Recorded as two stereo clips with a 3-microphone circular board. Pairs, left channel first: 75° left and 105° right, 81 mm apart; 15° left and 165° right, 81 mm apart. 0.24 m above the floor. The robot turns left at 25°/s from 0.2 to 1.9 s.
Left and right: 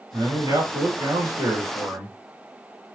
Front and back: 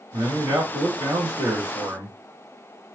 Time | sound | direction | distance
0.1 | a man speaking | 120° right | 2.5 m